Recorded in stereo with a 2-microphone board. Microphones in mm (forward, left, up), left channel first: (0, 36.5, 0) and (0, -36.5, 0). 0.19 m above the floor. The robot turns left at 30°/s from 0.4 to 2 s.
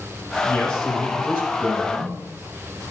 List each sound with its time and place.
0.4 s a man speaking: 20° left, 5 m; by 2.1 s 30° right, 5 m